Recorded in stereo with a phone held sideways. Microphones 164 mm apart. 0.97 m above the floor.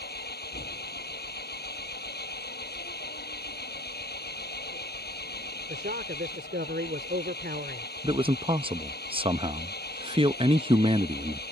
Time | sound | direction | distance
0.0 | an engine running | 80° left | ?
5.7 | a man speaking | 80° right | ?
8.0 | a man speaking | 35° right (ahead or behind) | ?